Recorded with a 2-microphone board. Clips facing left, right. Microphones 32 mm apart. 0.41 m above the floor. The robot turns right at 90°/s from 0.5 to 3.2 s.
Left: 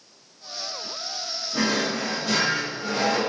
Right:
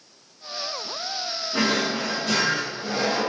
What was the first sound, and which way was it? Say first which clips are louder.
A drawer: right 1 dB; 70° right.